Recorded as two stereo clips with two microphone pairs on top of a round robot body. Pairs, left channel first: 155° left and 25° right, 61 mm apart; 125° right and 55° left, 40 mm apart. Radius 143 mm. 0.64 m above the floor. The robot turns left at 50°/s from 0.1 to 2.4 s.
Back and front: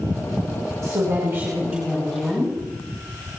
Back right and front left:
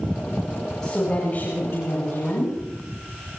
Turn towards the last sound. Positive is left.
turn(degrees=-125)